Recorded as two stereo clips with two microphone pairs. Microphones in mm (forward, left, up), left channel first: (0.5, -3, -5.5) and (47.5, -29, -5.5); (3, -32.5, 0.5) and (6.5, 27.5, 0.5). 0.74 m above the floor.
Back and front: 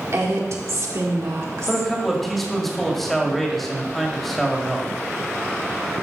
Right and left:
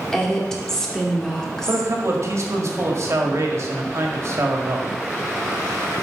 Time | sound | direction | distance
0.1 | a woman speaking | 15° right | 2 m
1.7 | a man speaking | 60° left | 1.9 m